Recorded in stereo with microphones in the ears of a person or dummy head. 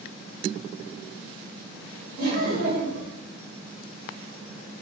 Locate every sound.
2.2 s laughter: 65° right (ahead or behind), 1.4 m